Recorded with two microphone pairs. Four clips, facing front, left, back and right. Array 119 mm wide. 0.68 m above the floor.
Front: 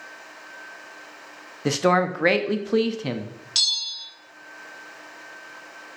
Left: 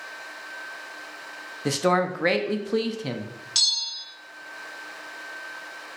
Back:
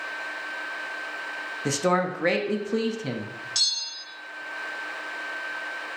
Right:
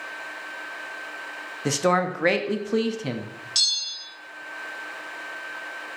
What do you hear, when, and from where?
1.6 s a man speaking: 15° right, 0.5 m
3.5 s a bell: 70° left, 1.0 m